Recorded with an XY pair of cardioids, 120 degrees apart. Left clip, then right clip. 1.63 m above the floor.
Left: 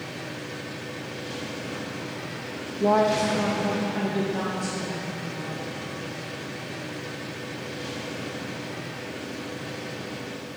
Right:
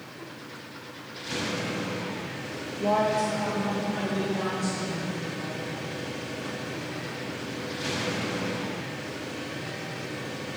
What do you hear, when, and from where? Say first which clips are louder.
2.8 s a woman speaking: left 3 dB; 25° left, 0.6 m; by 5.7 s 55° left, 3.5 m